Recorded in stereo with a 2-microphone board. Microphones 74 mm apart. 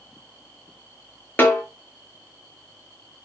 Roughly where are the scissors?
No scissors in this recording.